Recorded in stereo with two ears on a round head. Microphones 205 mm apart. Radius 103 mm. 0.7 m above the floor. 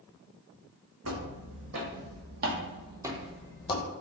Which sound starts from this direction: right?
Footsteps, at 1.0 s.